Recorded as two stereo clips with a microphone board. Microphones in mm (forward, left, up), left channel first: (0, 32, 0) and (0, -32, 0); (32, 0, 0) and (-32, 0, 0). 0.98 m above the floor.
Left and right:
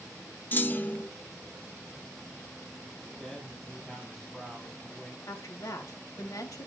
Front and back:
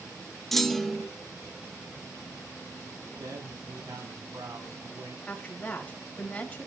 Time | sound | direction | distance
0.5 | a clunk | 80° left | 0.7 m
3.2 | a man speaking | straight behind | 7.5 m
5.3 | a woman speaking | 70° left | 4 m